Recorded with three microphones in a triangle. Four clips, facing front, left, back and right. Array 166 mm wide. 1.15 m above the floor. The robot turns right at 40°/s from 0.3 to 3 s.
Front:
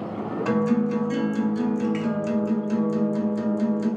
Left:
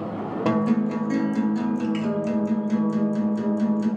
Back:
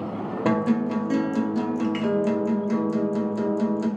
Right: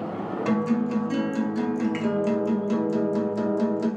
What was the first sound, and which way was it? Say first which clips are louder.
A guitar: left 2 dB, even; 140° left.